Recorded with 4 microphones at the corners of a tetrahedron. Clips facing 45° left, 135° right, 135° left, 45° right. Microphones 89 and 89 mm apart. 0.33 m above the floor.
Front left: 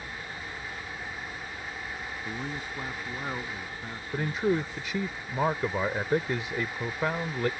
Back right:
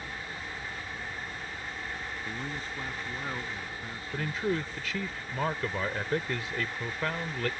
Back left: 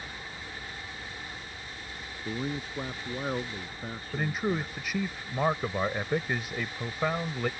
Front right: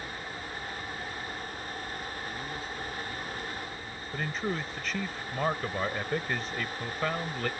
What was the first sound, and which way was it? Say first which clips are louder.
A man speaking: front left 3 dB, back left 3 dB; 120° left.